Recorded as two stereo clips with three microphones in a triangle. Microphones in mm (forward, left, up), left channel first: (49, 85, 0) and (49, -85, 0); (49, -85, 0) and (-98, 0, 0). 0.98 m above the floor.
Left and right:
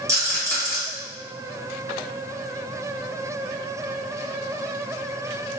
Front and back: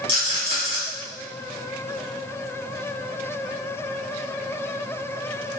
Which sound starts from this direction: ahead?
A rattle, at 0.1 s.